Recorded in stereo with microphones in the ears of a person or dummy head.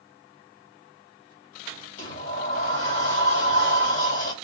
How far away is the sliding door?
About 1.7 m.